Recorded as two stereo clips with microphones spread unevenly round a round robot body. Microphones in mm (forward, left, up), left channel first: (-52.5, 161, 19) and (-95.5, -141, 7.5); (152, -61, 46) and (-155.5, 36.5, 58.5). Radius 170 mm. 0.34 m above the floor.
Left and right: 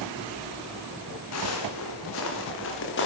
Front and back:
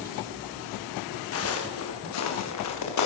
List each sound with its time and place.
1.3 s footsteps: 35° left, 7 m; by 3.1 s 20° left, 6.5 m